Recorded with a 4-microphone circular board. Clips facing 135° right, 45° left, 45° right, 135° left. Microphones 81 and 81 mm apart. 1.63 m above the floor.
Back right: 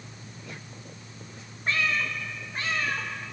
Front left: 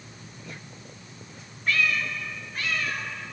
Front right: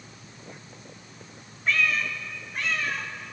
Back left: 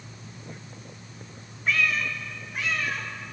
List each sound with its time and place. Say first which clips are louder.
1.7 s a cat meowing: front left 1 dB, even; 140° right, 0.9 m